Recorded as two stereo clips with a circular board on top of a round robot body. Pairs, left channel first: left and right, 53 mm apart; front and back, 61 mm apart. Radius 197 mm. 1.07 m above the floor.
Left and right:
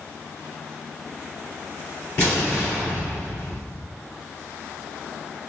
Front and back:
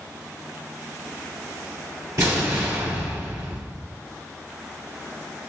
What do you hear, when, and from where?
2.2 s an explosion: 145° left, 1.7 m